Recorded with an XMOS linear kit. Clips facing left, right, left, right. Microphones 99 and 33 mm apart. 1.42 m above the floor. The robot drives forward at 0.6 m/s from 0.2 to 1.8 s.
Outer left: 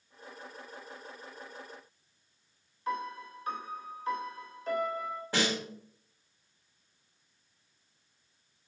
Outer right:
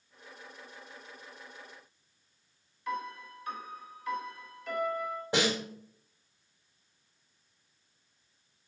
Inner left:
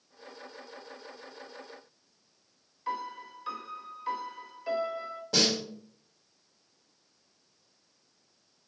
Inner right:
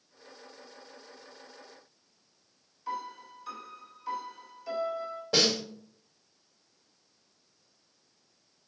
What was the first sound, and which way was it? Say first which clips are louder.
A piano: outer left 1 dB, inner left 2 dB; 35° left (ahead or behind).